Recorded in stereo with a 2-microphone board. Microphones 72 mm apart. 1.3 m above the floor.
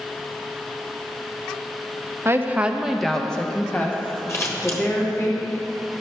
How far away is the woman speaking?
About 0.8 m.